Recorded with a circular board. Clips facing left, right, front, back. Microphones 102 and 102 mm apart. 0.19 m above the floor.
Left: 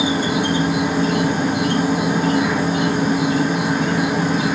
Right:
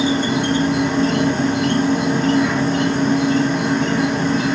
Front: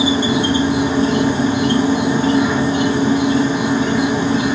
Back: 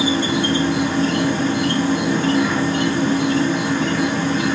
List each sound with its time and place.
0.0 s an insect: 25° left, 0.7 m